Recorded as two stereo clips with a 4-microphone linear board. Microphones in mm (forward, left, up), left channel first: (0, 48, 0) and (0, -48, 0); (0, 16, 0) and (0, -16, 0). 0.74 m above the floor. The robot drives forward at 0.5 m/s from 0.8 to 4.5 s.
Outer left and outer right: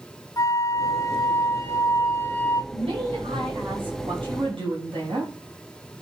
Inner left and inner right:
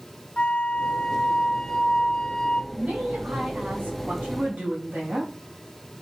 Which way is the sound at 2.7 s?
80° right.